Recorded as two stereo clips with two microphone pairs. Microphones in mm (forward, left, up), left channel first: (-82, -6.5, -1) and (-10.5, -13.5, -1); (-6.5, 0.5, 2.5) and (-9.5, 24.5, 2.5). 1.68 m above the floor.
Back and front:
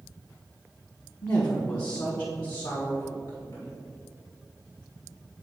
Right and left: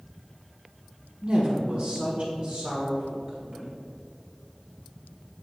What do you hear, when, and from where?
1.2 s a woman speaking: 155° left, 1.0 m; by 3.7 s 165° left, 2 m